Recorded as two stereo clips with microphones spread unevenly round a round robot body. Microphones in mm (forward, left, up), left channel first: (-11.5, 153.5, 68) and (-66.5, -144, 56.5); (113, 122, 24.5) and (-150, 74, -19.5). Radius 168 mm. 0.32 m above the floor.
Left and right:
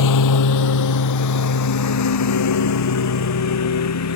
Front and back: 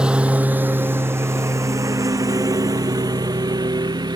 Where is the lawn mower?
105° left; by 4.2 s 115° left.